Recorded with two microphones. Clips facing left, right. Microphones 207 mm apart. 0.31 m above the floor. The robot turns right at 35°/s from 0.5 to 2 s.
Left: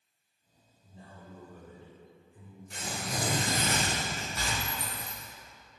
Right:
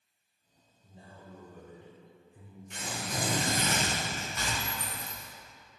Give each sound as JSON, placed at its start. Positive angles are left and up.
{"t": 0.8, "sound": "a man speaking", "side_deg": -20, "distance_m": 1.5}
{"t": 2.7, "sound": "tearing paper", "side_deg": 35, "distance_m": 1.6}
{"t": 4.6, "sound": "a dropped coin", "side_deg": 30, "distance_m": 1.5}